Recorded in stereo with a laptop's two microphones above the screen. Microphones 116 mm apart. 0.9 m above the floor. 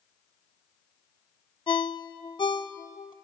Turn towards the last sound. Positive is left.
turn(degrees=40)  # may be behind; listen again after turning